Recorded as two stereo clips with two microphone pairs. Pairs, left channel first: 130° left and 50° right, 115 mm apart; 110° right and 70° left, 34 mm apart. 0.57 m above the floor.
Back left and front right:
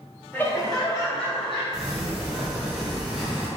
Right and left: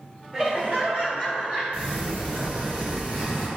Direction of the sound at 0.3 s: 75° left.